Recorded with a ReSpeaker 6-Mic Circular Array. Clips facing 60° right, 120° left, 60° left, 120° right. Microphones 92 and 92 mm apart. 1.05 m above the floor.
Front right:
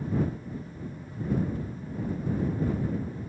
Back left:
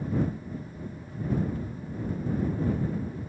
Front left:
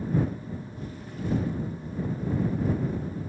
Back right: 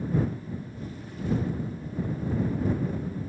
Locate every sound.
Only background noise.